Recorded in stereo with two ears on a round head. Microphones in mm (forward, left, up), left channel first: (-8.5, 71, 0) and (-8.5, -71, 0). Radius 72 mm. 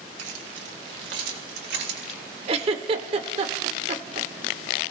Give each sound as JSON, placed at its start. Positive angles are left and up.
{"t": 0.2, "sound": "keys jangling", "side_deg": -80, "distance_m": 2.5}
{"t": 2.5, "sound": "a giggle", "side_deg": -40, "distance_m": 1.4}